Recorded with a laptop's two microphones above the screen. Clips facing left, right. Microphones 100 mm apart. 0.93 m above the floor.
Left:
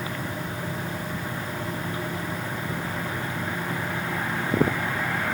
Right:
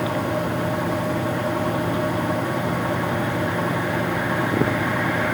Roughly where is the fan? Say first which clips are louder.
Right 9 dB; right.